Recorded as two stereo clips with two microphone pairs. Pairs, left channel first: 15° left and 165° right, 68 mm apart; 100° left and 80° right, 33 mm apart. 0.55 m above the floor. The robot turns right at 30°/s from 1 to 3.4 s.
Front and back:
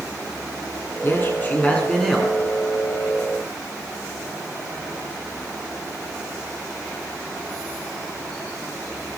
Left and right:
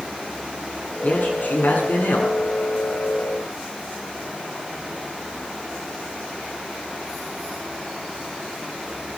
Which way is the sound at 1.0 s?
65° left.